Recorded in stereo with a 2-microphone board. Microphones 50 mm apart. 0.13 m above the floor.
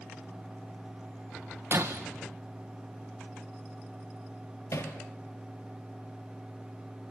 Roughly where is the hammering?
Left.